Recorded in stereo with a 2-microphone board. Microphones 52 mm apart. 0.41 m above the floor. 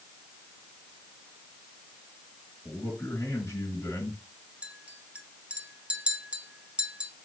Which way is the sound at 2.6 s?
55° left (ahead or behind).